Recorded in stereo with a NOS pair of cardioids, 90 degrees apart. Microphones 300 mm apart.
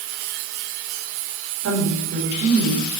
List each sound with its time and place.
1.6 s a woman speaking: 65° right, 4.5 m